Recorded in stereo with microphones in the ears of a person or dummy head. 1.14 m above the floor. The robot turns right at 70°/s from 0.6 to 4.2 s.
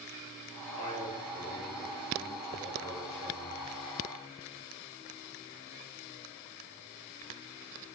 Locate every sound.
0.7 s a man speaking: 95° left, 1.7 m; by 3.6 s 65° right, 1.7 m